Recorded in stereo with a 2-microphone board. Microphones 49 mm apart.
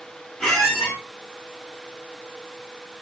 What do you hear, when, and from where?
0.4 s a squeak: 10° left (ahead or behind), 1.3 m